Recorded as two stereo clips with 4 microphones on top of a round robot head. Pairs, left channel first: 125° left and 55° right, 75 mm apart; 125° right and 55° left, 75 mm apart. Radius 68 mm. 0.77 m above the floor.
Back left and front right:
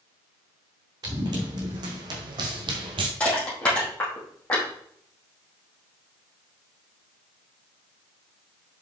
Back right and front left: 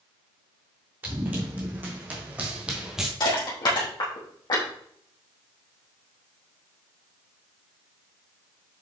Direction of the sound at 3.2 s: 160° right.